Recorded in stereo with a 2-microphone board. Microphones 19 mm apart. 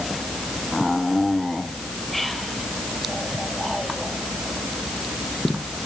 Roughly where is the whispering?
Centre.